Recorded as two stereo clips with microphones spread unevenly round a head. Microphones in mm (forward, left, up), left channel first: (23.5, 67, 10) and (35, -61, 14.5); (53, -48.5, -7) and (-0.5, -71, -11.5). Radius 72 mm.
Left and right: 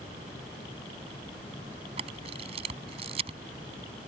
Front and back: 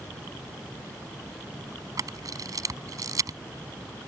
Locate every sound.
2.0 s a camera shutter: 140° right